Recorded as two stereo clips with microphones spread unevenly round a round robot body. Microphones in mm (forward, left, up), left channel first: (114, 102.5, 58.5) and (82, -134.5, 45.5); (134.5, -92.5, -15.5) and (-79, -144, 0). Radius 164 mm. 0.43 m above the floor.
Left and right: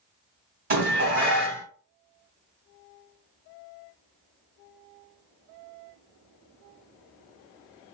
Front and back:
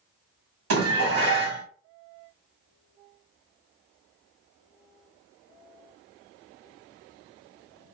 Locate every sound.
0.7 s dishes clattering: 155° right, 1.7 m